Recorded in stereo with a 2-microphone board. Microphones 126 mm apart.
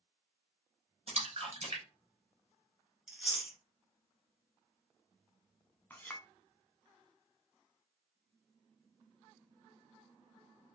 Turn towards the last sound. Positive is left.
turn(degrees=15)  # may be behind; listen again after turning